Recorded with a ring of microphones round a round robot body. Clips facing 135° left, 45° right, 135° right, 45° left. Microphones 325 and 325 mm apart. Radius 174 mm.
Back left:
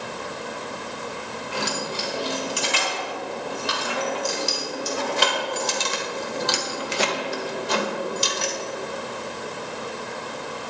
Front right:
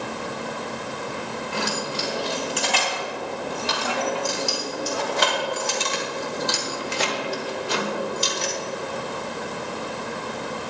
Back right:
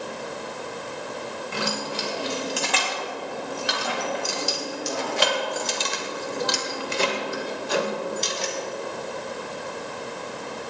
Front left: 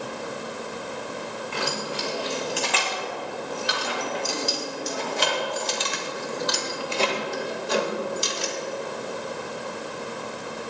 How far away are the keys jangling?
About 3.5 m.